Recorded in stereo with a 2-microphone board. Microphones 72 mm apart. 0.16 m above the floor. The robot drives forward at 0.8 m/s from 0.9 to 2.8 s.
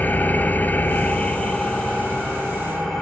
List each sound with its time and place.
0.0 s an engine running: 25° left (ahead or behind), 0.7 m; by 3.0 s 10° left (ahead or behind), 2 m